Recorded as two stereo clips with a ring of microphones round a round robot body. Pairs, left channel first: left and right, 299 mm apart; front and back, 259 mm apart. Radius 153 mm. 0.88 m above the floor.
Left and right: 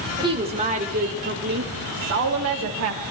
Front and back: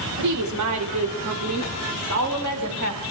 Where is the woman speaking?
165° right, 2.5 m; by 3.0 s 135° right, 4 m.